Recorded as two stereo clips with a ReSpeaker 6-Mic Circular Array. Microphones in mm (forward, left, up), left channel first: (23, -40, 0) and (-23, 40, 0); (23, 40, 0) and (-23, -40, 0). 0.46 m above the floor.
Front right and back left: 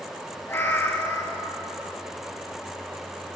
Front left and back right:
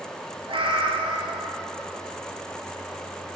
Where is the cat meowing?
125° right, 1.2 m.